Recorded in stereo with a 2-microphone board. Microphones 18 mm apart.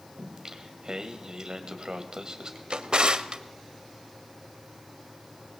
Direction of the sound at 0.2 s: 50° right (ahead or behind).